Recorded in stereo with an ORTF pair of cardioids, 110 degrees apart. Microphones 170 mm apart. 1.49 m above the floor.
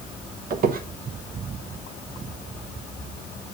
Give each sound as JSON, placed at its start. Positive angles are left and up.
{"t": 0.5, "sound": "a squeak", "azimuth_deg": -60, "distance_m": 1.4}